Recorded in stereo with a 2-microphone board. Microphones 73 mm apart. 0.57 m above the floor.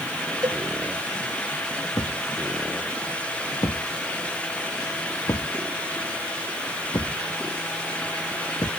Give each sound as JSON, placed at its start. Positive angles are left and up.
{"t": 0.4, "sound": "a cowbell", "side_deg": -65}
{"t": 1.9, "sound": "a thud", "side_deg": 65}